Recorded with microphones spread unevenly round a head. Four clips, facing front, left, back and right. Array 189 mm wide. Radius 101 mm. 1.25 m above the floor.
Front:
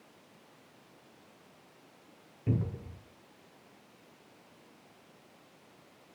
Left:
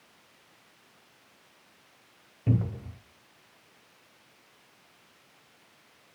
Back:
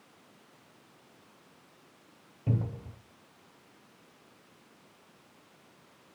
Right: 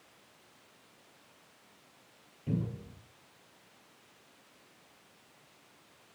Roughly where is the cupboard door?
Left.